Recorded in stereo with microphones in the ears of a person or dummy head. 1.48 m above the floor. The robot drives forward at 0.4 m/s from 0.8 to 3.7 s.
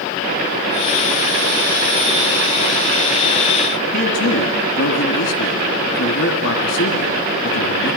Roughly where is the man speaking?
Left.